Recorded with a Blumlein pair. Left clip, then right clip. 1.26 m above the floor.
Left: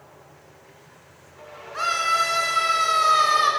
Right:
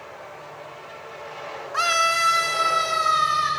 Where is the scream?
25° right, 1.6 m; by 3.5 s 25° left, 1.7 m.